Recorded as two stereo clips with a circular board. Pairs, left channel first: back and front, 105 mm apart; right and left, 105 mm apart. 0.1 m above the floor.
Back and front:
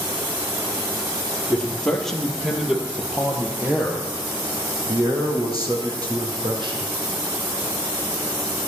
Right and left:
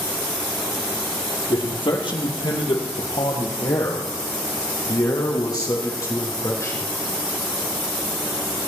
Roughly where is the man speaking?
Right.